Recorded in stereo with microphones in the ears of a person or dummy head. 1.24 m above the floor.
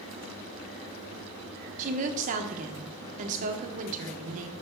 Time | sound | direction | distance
1.8 | a woman speaking | 40° right (ahead or behind) | 0.9 m